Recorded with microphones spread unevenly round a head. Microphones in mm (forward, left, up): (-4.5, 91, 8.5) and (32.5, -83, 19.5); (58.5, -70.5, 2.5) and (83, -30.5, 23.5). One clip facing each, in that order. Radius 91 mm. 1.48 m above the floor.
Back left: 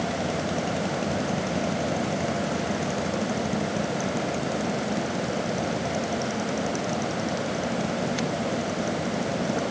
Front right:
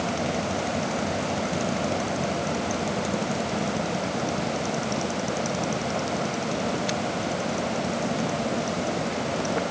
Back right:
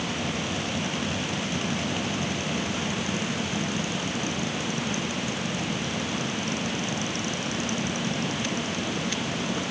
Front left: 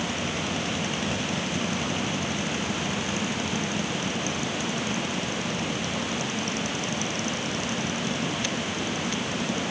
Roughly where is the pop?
No pop in this recording.